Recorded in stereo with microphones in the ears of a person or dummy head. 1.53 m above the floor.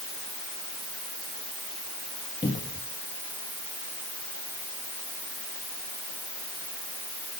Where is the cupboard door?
25° left (ahead or behind), 2.0 m.